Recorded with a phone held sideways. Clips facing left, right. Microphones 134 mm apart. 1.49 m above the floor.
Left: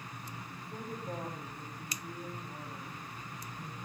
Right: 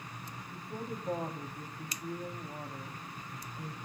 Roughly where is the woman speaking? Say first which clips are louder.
Right 3 dB; right.